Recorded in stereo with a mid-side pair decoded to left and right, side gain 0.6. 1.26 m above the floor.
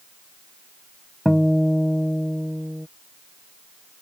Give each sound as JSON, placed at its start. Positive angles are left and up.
{"t": 1.2, "sound": "a guitar", "azimuth_deg": 0}